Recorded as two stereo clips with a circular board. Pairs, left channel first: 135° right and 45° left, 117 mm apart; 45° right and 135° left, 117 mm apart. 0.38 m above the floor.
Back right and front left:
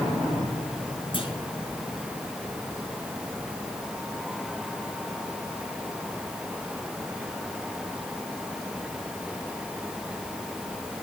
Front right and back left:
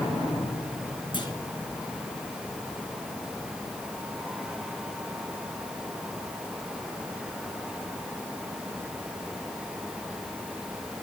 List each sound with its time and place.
1.1 s a clunk: 95° right, 5.5 m